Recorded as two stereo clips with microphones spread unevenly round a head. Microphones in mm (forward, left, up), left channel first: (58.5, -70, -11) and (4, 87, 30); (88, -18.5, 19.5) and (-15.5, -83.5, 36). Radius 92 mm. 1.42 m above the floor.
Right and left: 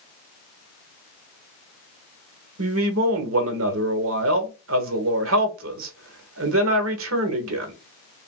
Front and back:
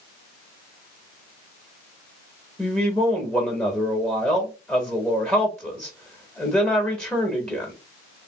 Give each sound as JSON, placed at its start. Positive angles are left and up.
{"t": 2.6, "sound": "a man speaking", "azimuth_deg": 115, "distance_m": 1.1}